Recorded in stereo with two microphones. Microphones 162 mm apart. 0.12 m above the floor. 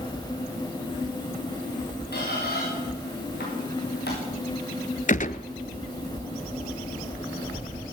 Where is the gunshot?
55° left (ahead or behind), 0.7 m.